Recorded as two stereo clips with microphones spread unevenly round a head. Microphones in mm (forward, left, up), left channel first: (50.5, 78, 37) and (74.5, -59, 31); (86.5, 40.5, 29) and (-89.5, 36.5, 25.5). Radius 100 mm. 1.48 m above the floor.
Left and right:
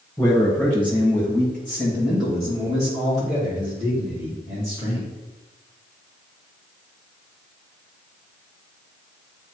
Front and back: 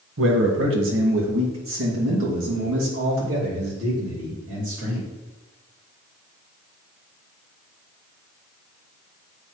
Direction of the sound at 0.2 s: 175° left.